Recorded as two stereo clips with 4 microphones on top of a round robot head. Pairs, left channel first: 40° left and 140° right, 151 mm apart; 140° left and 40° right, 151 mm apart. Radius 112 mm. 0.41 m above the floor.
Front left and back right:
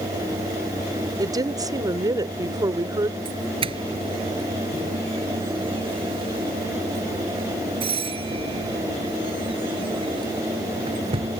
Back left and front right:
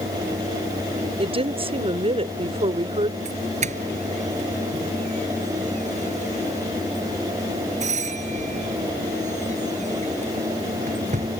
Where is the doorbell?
80° right.